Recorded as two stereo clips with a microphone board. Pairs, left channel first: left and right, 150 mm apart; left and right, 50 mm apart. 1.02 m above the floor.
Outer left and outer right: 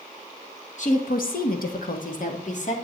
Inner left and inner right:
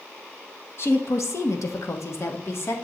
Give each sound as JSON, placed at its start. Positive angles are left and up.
{"t": 0.8, "sound": "a woman speaking", "side_deg": 55, "distance_m": 1.2}